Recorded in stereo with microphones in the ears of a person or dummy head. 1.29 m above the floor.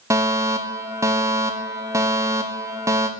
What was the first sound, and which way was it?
A fire alarm, 10° right (ahead or behind).